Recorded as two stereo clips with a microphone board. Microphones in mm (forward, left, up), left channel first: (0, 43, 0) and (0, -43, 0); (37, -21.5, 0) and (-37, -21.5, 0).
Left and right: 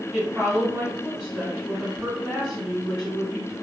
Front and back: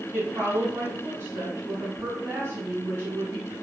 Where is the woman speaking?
165° right, 1.4 m.